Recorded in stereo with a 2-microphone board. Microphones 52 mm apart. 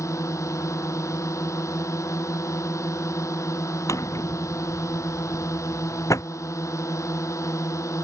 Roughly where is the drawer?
Left.